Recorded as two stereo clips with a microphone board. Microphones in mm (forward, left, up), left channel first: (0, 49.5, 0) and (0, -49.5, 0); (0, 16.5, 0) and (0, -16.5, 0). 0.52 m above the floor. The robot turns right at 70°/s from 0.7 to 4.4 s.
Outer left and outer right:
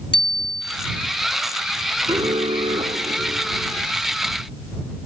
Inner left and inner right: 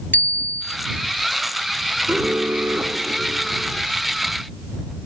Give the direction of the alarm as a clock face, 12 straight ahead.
5 o'clock.